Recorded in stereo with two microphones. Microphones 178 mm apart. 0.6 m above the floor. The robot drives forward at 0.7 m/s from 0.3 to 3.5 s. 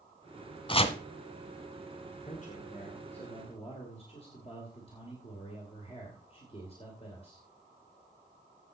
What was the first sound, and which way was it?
Chopping, 30° left (ahead or behind).